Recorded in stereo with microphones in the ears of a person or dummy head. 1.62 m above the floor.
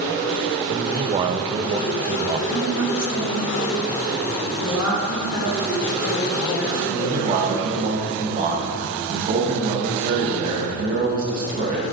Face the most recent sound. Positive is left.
turn(degrees=-40)  # may be behind; listen again after turning